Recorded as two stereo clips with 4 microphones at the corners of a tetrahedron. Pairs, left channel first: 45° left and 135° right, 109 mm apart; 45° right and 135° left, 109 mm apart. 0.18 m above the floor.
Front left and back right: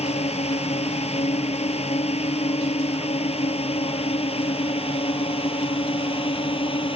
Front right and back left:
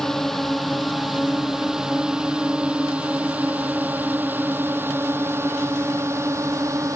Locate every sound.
0.0 s a drone: 40° left; by 7.0 s 75° left